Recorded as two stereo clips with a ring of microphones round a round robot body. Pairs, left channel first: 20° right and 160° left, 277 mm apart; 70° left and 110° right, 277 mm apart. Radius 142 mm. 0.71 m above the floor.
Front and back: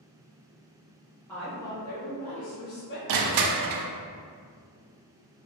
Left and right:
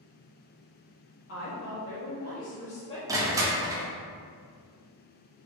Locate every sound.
1.3 s a woman speaking: 60° left, 1.4 m; by 3.9 s 15° right, 1.6 m
3.1 s crushing: 170° left, 0.5 m